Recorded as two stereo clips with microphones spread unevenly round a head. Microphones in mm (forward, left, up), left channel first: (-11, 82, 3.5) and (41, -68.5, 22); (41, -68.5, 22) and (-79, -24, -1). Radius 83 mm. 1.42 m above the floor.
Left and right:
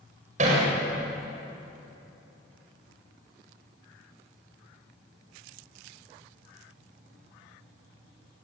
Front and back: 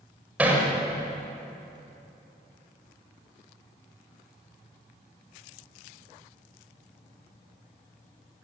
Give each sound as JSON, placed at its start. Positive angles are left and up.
{"t": 0.4, "sound": "hammering", "azimuth_deg": -120, "distance_m": 6.5}